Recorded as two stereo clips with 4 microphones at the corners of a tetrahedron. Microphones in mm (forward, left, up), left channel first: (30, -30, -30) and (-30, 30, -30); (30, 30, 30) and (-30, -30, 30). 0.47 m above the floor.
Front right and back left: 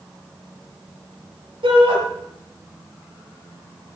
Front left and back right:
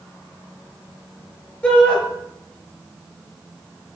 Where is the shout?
120° left, 7.5 m.